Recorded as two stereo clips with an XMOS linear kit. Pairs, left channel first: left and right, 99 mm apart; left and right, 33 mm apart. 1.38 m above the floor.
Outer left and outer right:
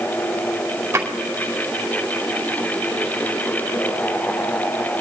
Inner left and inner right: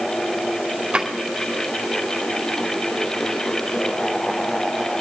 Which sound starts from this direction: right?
A drawer, at 0.9 s.